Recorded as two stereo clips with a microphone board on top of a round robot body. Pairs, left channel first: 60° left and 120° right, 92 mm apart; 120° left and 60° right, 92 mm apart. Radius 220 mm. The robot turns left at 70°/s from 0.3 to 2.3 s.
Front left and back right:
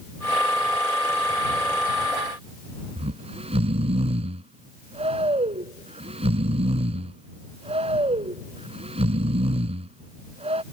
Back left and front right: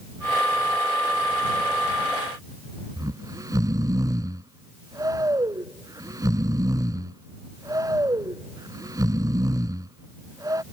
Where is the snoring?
115° right.